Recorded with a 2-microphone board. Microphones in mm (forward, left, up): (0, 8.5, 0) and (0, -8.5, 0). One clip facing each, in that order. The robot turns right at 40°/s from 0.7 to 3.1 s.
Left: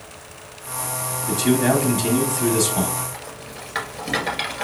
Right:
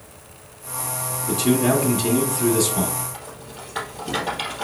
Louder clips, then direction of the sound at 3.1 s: Left 2 dB; 75° left (ahead or behind).